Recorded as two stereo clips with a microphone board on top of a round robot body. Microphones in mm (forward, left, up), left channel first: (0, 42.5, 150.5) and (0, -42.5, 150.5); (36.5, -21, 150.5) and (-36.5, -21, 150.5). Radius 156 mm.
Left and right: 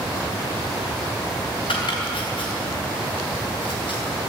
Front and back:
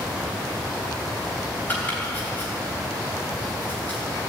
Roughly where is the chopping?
Left.